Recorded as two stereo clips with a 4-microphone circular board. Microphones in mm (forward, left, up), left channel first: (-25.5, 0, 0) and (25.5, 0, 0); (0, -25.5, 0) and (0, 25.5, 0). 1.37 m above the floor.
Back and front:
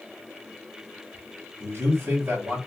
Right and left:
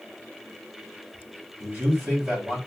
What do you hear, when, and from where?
1.6 s a man speaking: 45° left, 1.7 m